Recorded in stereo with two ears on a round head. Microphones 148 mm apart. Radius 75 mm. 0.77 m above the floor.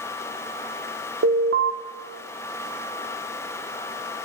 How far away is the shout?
No shout in this recording.